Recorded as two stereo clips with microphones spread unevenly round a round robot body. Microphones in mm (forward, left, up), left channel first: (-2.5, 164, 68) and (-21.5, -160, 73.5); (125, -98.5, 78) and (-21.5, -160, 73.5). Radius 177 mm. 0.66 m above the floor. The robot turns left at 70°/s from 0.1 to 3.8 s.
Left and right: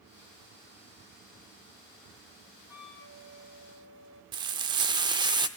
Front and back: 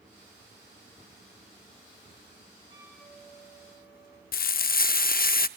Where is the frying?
15° right, 0.6 m.